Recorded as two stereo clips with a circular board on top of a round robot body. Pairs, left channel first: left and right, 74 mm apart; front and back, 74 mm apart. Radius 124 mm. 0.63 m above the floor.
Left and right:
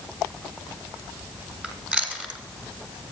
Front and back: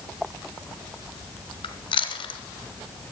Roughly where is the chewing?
Ahead.